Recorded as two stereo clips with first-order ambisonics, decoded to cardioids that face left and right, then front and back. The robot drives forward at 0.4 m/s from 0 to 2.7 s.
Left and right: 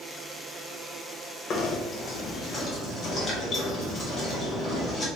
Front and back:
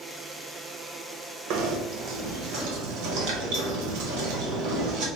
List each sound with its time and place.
1.5 s knocking: 145° left, 0.6 m; by 5.1 s 160° left, 1.0 m